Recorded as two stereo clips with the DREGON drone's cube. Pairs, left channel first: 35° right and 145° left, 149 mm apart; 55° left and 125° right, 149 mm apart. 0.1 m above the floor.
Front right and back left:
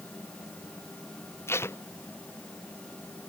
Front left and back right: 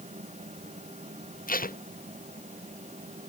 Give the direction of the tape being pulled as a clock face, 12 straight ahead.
11 o'clock.